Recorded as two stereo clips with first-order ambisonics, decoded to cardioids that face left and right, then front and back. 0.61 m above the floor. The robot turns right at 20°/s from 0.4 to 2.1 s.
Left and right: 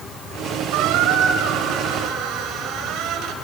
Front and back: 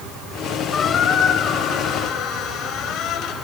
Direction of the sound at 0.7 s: 75° right.